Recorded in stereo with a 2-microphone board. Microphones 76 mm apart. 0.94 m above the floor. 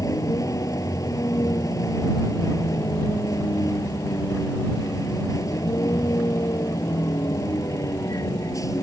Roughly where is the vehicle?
Left.